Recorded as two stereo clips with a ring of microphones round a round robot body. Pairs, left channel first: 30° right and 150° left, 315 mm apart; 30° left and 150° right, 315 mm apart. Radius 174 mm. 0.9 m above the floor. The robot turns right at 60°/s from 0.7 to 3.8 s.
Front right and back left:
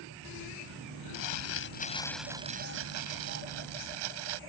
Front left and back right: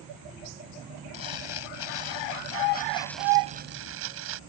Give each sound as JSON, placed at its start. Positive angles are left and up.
{"t": 1.1, "sound": "crumpling", "azimuth_deg": -5}